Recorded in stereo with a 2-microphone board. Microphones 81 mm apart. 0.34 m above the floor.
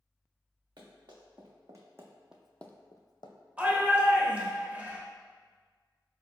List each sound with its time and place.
0.8 s running footsteps: 55° right (ahead or behind), 1.6 m; by 3.4 s 65° left (ahead or behind), 0.8 m
3.6 s a shout: 15° right (ahead or behind), 0.8 m